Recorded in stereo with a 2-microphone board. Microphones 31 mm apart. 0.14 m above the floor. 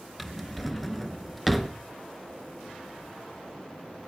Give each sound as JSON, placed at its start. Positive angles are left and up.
{"t": 0.2, "sound": "a drawer", "side_deg": 0, "distance_m": 0.7}